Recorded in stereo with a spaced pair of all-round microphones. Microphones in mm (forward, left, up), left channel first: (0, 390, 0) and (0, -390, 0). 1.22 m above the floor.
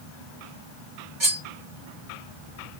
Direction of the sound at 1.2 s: 35° right (ahead or behind).